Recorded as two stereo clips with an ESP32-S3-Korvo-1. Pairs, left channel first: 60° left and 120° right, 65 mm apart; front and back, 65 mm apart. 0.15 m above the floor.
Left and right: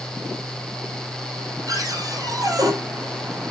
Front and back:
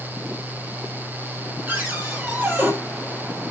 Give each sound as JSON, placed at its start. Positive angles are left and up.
{"t": 1.7, "sound": "a cupboard door", "azimuth_deg": -125, "distance_m": 3.5}